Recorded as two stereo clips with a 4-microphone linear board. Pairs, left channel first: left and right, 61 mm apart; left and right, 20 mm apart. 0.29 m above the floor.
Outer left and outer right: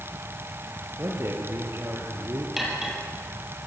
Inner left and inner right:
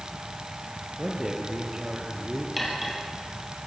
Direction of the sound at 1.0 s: 40° right (ahead or behind).